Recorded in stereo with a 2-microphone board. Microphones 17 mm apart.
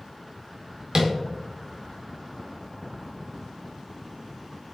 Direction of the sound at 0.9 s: 45° right (ahead or behind).